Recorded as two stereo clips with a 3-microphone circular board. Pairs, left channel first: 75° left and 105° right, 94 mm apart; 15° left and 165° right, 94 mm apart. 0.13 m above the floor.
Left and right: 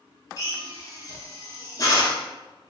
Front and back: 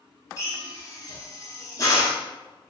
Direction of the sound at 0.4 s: 50° left.